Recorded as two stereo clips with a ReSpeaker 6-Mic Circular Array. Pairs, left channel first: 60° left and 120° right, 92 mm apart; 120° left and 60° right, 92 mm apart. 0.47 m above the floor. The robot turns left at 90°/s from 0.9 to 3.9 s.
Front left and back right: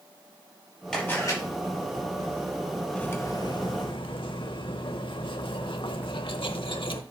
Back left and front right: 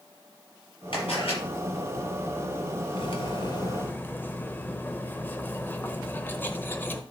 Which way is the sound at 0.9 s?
145° left.